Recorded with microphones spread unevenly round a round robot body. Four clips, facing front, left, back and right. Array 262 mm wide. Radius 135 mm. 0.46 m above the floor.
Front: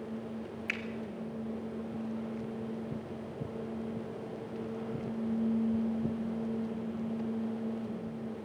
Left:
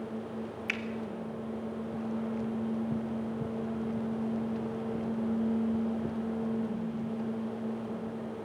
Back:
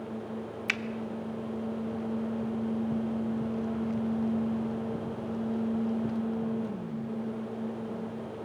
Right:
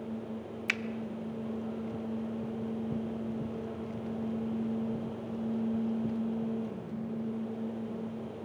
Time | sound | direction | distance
0.7 | a finger snap | 120° right | 1.0 m